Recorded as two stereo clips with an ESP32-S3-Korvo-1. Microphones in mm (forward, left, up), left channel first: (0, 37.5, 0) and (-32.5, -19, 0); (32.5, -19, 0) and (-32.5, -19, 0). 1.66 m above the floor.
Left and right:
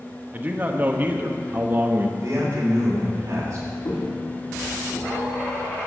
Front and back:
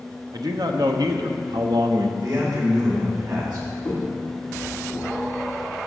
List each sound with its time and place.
0.3 s a man speaking: 175° left, 1.2 m
2.2 s a man speaking: 165° right, 4.5 m
3.9 s footsteps: 65° left, 5 m; by 5.1 s 55° left, 5 m